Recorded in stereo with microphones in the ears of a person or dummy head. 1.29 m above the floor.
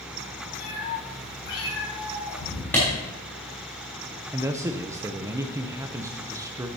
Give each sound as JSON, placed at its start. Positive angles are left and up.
{"t": 0.6, "sound": "a cat meowing", "side_deg": 60, "distance_m": 4.5}
{"t": 2.7, "sound": "a clap", "side_deg": 10, "distance_m": 3.5}
{"t": 4.3, "sound": "a man speaking", "side_deg": -20, "distance_m": 0.6}